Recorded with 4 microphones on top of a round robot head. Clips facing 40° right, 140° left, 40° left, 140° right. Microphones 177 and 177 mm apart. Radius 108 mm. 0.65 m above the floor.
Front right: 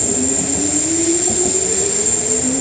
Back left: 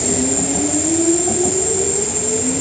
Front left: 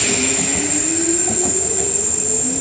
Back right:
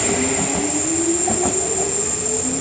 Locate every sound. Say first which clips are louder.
0.0 s an insect: back left 1 dB, back right 2 dB; 40° left, 5.5 m